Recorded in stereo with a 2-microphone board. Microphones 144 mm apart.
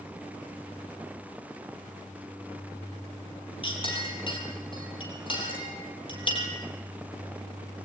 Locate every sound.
3.6 s a clink: 35° left (ahead or behind), 6.5 m